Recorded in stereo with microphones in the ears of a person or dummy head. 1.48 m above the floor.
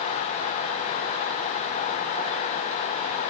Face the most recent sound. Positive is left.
No sound to turn to.